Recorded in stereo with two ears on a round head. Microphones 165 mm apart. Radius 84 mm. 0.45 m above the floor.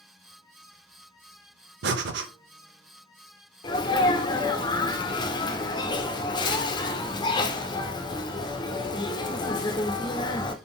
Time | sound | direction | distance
1.8 | breathing | 65° right (ahead or behind) | 0.6 m
3.6 | a sneeze | 25° left (ahead or behind) | 0.8 m